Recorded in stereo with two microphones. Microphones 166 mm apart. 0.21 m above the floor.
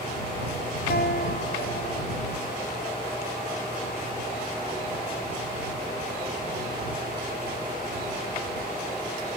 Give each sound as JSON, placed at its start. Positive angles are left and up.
{"t": 0.9, "sound": "a guitar", "side_deg": 75}